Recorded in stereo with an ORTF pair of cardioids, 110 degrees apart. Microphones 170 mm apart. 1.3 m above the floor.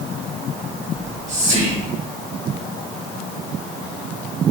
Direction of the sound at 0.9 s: 45° right.